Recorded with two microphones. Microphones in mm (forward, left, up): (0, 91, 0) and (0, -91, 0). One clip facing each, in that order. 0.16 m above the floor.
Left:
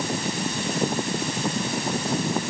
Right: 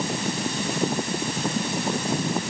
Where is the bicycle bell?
No bicycle bell in this recording.